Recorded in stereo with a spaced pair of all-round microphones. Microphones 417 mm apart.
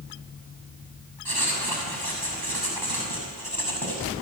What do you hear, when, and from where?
1.2 s writing: 60° right (ahead or behind), 6 m